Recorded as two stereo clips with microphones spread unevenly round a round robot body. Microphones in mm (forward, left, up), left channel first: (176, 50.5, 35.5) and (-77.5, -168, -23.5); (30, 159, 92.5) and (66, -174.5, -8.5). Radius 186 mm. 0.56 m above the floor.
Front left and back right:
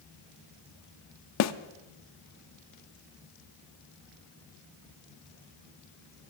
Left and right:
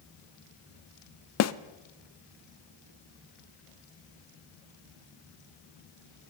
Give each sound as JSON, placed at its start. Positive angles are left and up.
{"t": 1.4, "sound": "a snare drum", "azimuth_deg": 55, "distance_m": 0.5}